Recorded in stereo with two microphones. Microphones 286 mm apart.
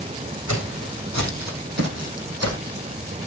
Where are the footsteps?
70° right (ahead or behind), 4.5 m; by 2.9 s 50° right (ahead or behind), 4 m.